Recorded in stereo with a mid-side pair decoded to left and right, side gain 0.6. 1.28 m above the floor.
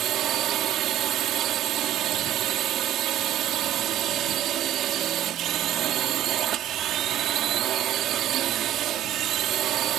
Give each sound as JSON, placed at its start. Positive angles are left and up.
{"t": 0.0, "sound": "a drone", "azimuth_deg": -60}